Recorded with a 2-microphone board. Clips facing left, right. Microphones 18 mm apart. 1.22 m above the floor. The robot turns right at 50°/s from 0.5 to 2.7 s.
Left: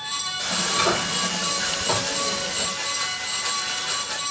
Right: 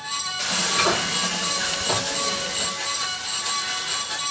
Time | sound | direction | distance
0.4 | frying | 50° right | 2 m